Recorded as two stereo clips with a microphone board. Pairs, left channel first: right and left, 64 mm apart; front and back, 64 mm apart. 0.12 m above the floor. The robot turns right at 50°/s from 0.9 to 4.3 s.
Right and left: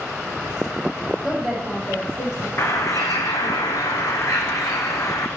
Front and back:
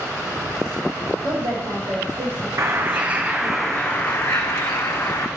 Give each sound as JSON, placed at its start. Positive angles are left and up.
{"t": 1.2, "sound": "a woman speaking", "azimuth_deg": 170, "distance_m": 3.5}
{"t": 2.6, "sound": "a bird", "azimuth_deg": -140, "distance_m": 1.3}